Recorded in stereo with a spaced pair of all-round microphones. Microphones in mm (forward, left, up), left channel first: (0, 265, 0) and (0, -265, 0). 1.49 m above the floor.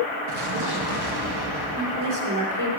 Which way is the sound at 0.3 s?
50° right (ahead or behind).